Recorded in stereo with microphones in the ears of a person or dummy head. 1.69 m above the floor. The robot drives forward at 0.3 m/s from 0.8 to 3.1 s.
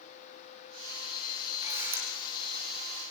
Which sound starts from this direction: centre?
A camera shutter, at 1.6 s.